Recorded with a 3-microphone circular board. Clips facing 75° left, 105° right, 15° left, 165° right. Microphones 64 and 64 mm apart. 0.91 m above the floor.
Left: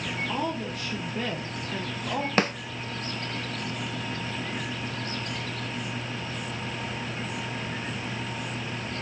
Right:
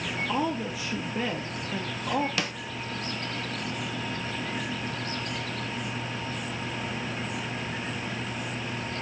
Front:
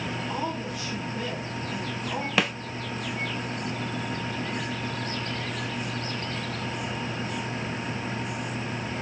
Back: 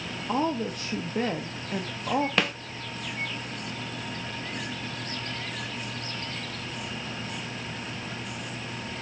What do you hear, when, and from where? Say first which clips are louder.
0.3 s a woman speaking: right 3 dB, back 8 dB; 175° left, 0.9 m
2.4 s a snare drum: left 7 dB, front 1 dB; 100° left, 0.6 m